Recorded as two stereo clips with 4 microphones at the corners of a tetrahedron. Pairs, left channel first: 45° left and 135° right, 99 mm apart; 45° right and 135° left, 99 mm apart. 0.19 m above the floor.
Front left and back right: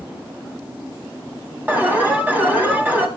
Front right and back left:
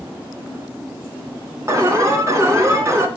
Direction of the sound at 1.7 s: 165° left.